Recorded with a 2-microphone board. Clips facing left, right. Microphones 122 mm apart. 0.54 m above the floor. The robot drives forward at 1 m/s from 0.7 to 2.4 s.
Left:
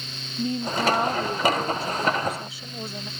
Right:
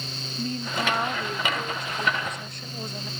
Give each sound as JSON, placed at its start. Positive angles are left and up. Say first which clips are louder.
{"t": 0.4, "sound": "a woman speaking", "louder": "left 4 dB", "side_deg": 20}